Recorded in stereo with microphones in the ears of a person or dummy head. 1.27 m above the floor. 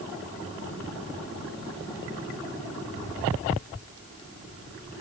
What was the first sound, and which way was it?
Only background noise.